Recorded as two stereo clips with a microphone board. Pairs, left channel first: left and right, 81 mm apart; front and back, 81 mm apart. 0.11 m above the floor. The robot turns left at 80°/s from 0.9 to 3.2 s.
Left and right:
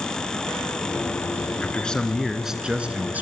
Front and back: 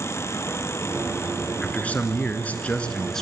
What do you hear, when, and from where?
1.6 s a man speaking: 50° left, 1.2 m; by 3.2 s 75° right, 1.2 m